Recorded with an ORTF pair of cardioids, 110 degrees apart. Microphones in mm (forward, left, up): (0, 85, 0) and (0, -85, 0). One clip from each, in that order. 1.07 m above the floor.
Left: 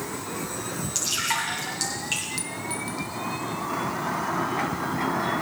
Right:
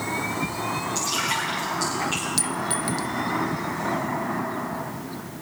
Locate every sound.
0.9 s dripping: 55° left, 9.5 m
2.4 s a clink: 35° right, 0.7 m